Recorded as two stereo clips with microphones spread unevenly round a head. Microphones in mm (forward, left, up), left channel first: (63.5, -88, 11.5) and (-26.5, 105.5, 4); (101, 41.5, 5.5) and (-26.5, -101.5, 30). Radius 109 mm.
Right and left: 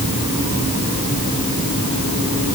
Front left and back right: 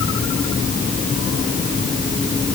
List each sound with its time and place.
Only background noise.